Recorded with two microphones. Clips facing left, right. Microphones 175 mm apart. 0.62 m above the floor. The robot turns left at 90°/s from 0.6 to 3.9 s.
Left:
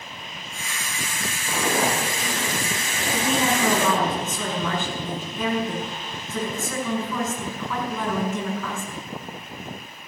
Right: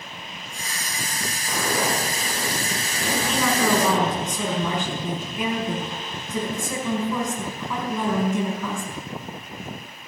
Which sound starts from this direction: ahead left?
A woman speaking, at 3.1 s.